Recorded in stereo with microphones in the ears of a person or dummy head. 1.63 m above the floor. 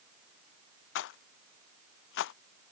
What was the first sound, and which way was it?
A rattle, 65° left (ahead or behind).